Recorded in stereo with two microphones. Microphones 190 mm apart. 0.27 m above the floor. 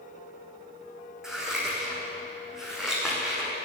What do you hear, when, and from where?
1.2 s scissors: 5° right (ahead or behind), 4.5 m